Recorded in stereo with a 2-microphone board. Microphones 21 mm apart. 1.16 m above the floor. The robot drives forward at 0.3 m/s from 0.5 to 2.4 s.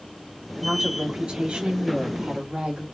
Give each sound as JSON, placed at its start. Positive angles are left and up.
{"t": 0.6, "sound": "a woman speaking", "side_deg": -60, "distance_m": 2.5}